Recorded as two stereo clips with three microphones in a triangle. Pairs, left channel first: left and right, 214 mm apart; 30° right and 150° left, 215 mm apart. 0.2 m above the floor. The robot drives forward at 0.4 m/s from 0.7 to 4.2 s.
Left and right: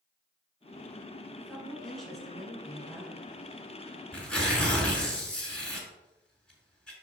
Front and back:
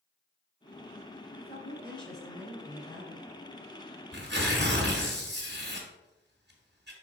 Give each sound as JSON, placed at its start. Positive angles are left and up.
{"t": 1.4, "sound": "a woman speaking", "azimuth_deg": 180, "distance_m": 2.0}
{"t": 4.1, "sound": "tearing paper", "azimuth_deg": 175, "distance_m": 1.8}